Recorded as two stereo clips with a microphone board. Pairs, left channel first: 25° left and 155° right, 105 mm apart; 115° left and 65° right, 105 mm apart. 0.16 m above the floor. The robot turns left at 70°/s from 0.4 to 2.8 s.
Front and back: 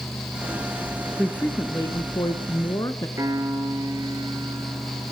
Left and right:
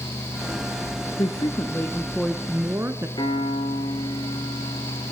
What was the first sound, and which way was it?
A woman speaking, 100° left.